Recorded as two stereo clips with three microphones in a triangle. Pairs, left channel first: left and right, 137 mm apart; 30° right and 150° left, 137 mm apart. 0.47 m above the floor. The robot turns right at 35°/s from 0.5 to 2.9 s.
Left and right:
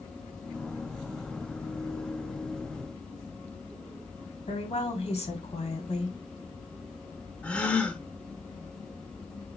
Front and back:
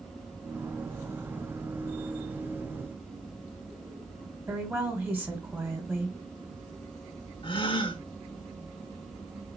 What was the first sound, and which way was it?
A woman speaking, 80° left.